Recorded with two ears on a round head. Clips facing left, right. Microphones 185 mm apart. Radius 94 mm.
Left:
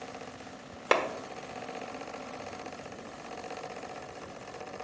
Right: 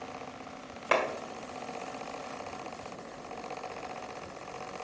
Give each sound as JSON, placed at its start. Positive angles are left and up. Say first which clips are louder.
{"t": 0.9, "sound": "a clap", "louder": "left 1 dB", "side_deg": 60, "distance_m": 1.3}